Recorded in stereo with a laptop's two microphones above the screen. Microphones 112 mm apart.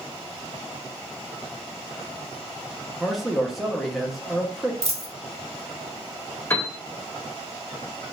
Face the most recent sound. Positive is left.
turn(degrees=20)  # may be behind; listen again after turning